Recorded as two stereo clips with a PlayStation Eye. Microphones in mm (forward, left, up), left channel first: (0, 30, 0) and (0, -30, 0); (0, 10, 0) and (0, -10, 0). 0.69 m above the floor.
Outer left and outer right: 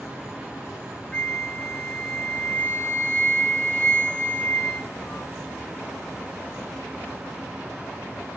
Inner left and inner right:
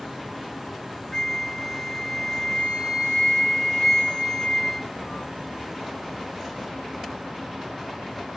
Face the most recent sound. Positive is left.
turn(degrees=20)  # may be behind; listen again after turning